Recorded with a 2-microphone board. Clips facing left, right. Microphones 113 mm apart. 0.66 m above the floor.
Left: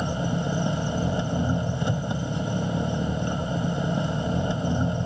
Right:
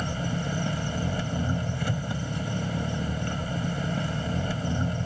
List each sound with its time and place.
0.0 s an engine running: 20° left (ahead or behind)